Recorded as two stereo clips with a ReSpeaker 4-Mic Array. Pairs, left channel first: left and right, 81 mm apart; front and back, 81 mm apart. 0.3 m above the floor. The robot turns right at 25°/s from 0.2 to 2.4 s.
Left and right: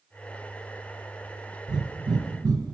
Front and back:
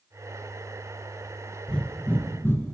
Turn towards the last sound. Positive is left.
turn(degrees=-55)